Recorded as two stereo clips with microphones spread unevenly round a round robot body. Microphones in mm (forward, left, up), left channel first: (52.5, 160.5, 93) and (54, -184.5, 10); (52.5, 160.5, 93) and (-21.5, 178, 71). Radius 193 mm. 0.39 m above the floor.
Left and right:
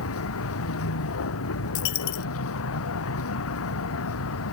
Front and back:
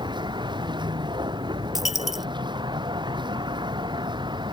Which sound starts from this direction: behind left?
A vehicle, at 0.0 s.